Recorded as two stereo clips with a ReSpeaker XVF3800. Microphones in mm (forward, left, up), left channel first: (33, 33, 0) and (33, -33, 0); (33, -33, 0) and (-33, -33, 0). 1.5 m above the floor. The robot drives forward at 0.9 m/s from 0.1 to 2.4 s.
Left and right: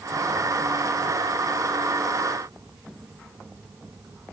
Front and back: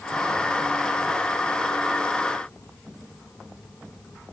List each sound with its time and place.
Only background noise.